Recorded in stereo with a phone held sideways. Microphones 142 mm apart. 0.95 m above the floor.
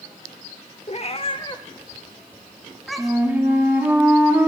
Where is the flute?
15° right (ahead or behind), 1.7 m.